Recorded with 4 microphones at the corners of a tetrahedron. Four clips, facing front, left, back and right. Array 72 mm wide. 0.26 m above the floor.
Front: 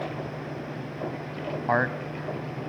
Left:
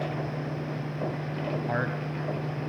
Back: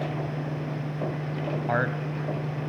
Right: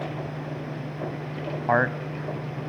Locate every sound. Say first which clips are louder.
1.7 s a man speaking: right 11 dB, front 3 dB; 65° right, 1.3 m